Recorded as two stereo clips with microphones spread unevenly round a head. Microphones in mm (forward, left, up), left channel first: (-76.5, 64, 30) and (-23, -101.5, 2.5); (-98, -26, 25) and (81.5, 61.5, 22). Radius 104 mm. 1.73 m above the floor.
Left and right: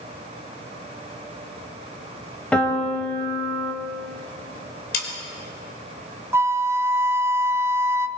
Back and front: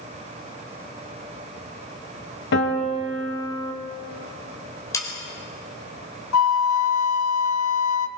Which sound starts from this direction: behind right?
A flute, at 6.3 s.